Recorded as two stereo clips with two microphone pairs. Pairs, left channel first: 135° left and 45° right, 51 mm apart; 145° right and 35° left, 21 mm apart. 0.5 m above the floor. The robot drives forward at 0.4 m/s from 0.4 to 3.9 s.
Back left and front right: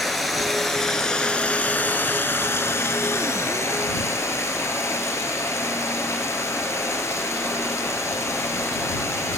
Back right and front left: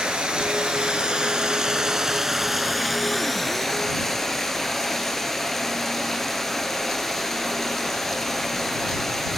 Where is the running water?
45° left, 0.9 m; by 9.4 s 140° left, 1.0 m.